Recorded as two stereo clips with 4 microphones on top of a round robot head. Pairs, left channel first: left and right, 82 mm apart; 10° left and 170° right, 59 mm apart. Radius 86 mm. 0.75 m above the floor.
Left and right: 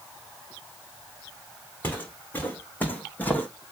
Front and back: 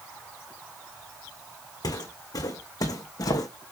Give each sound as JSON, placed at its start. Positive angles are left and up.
{"t": 1.8, "sound": "footsteps", "azimuth_deg": 20, "distance_m": 3.5}